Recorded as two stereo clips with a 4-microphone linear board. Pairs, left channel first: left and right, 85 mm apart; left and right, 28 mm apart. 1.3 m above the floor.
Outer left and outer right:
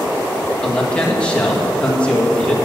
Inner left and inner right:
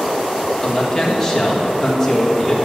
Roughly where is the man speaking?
Centre.